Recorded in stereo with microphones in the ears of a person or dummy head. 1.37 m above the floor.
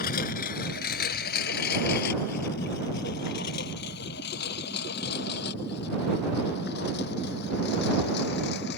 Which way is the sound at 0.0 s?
50° left (ahead or behind).